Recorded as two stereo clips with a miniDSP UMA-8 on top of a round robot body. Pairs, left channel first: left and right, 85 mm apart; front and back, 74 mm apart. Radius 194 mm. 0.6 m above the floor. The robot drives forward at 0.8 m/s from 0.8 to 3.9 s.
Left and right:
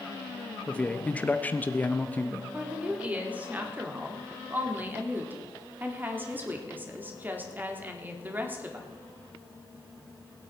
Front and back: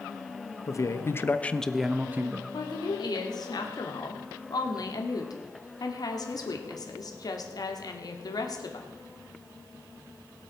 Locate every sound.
0.7 s a man speaking: 20° left, 1.2 m; by 2.4 s 155° left, 1.1 m
2.5 s a woman speaking: 15° right, 3.5 m; by 8.9 s 25° right, 2.5 m